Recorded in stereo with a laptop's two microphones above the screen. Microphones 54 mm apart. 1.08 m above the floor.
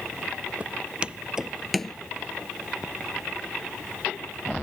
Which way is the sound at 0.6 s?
30° right (ahead or behind).